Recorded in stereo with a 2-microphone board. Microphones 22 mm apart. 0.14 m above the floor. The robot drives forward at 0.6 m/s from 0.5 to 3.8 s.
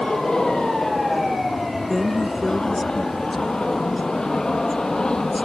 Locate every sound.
0.0 s an aircraft: 40° left (ahead or behind)
1.9 s a woman speaking: centre (ahead or behind)